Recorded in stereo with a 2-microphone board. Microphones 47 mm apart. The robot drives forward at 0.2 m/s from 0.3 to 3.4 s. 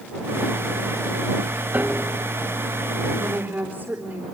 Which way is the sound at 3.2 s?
50° right (ahead or behind).